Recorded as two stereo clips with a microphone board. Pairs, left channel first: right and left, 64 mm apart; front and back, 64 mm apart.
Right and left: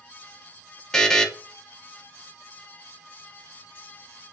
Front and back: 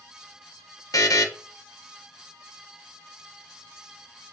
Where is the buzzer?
10° right, 0.5 m.